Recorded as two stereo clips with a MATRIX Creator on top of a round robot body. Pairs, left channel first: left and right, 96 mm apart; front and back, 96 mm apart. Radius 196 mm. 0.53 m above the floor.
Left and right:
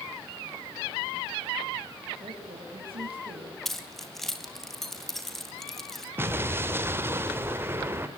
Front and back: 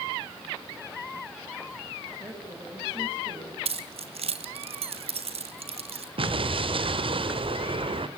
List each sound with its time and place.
2.2 s a woman speaking: 110° right, 5.5 m
3.6 s keys jangling: 175° left, 2.5 m
6.2 s an explosion: 155° right, 2 m